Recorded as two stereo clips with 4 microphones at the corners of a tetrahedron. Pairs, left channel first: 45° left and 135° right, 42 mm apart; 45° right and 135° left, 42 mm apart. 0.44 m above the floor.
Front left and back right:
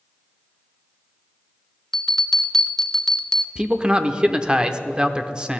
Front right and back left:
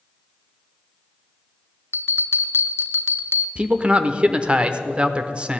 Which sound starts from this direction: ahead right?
A bell, at 1.9 s.